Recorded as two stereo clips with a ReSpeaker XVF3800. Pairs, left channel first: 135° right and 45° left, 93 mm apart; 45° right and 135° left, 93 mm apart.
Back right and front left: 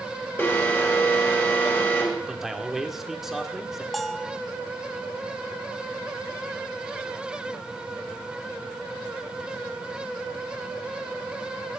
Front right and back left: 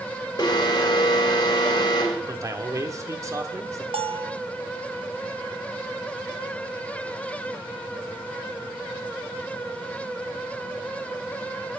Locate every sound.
0.4 s an alarm: 75° right, 1.7 m
2.3 s a man speaking: 130° left, 1.0 m
3.9 s a bell: 135° left, 0.6 m